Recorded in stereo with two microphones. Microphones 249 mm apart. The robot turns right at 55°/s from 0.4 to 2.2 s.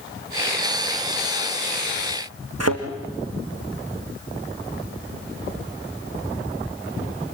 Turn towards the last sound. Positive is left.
turn(degrees=-85)